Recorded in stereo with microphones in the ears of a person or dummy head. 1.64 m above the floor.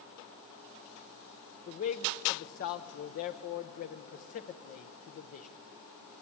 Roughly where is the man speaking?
Left.